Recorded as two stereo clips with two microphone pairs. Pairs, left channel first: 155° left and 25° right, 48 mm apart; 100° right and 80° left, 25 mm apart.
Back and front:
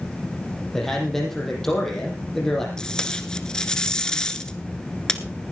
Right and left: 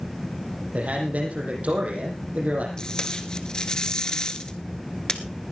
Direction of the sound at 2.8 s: 140° right.